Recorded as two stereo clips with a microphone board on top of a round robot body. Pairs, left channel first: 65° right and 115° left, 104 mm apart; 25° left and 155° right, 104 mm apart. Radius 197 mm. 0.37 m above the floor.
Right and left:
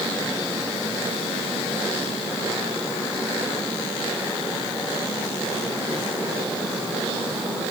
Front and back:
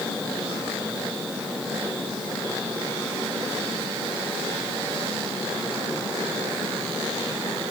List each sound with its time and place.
Only background noise.